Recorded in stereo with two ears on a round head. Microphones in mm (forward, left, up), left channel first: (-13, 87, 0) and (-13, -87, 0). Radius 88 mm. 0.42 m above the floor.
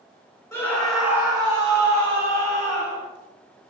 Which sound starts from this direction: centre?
A scream, at 0.5 s.